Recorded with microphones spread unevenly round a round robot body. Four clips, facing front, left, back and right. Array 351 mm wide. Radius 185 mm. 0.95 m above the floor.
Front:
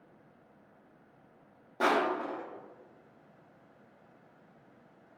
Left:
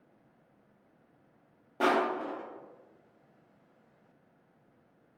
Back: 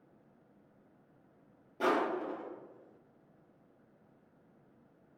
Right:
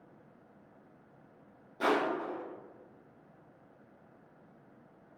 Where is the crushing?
55° left, 0.8 m.